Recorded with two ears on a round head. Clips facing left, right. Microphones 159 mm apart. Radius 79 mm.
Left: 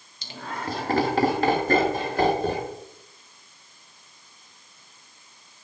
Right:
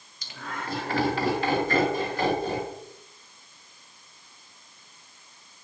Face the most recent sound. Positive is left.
turn(degrees=45)  # may be behind; listen again after turning